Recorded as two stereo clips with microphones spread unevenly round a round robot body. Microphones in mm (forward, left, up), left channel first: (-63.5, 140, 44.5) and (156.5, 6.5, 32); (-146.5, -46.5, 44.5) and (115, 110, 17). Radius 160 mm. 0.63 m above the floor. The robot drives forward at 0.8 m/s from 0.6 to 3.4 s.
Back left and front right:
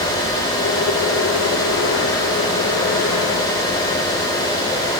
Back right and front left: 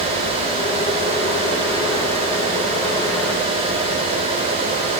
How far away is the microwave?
I don't hear a microwave.